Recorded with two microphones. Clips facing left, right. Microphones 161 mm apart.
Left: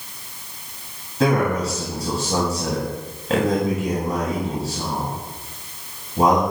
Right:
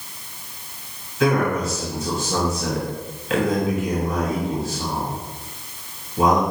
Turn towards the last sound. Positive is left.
turn(degrees=35)  # may be behind; listen again after turning